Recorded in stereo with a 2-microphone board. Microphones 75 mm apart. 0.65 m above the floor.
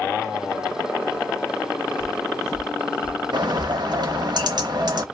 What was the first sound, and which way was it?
Footsteps, 20° left (ahead or behind).